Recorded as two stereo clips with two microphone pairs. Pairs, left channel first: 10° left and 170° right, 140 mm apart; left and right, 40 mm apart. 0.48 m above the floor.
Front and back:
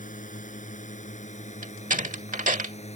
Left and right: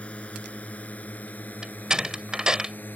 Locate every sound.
0.0 s a drone: 30° left; by 3.0 s 50° left
1.6 s a door slam: 160° right